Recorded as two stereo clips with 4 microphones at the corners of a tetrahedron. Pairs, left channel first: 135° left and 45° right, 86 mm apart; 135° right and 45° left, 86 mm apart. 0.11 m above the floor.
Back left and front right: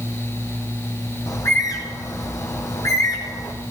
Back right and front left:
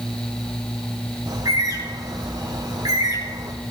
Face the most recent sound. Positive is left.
turn(degrees=85)